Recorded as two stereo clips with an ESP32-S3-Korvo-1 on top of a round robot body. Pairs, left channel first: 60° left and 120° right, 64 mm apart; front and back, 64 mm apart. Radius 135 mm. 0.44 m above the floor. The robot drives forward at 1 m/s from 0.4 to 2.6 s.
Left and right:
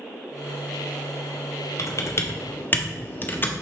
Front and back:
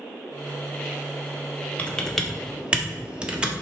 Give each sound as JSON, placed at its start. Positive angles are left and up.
{"t": 1.8, "sound": "typing on a keyboard", "azimuth_deg": 60, "distance_m": 1.3}